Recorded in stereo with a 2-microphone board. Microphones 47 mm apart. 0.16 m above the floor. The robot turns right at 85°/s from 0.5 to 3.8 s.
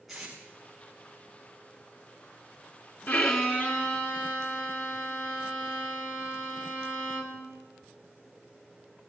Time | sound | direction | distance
0.1 | tape being pulled | centre (ahead or behind) | 8 m
3.1 | a violin | 80° left | 2.0 m